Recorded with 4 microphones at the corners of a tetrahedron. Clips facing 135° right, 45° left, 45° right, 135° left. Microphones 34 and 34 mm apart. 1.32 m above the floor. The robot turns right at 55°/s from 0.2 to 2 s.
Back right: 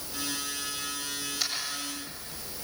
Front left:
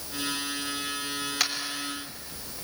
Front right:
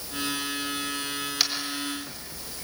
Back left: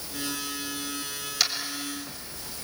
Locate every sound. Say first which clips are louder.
1.4 s tapping: front left 3 dB, back left 1 dB; 40° left, 3.5 m; by 2.6 s 70° left, 3.5 m